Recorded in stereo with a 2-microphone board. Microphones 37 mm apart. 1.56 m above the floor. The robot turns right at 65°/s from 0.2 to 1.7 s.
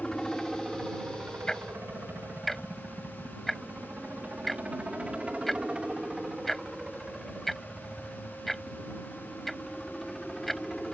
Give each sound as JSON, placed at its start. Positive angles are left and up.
{"t": 0.0, "sound": "a helicopter", "side_deg": 15}
{"t": 1.5, "sound": "ticking", "side_deg": 20}